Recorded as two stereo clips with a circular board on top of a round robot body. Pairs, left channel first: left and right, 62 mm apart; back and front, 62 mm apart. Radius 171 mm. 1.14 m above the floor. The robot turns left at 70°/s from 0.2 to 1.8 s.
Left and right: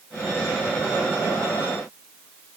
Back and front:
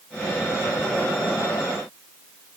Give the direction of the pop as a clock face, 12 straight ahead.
No pop in this recording.